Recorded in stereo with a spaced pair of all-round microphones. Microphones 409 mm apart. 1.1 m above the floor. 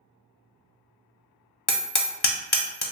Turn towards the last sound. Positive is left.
turn(degrees=65)  # may be behind; listen again after turning